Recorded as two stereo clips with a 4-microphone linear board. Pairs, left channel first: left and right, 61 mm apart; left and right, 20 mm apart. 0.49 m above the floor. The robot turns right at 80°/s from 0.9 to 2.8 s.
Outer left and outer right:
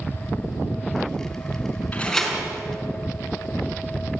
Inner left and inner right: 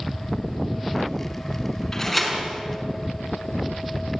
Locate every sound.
1.9 s a door slam: 155° left, 4.5 m; by 2.4 s 165° right, 4.5 m